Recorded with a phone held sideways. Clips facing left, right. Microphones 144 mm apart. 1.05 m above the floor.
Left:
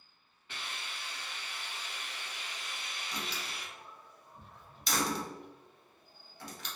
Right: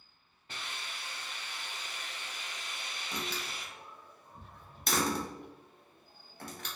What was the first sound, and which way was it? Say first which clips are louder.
A hiss: even; 40° right (ahead or behind).